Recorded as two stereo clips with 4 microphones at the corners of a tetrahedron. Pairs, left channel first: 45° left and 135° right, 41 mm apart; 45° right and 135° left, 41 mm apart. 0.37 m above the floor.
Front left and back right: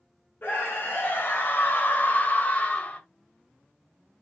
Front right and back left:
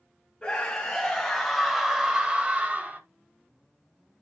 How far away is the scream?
About 2.5 m.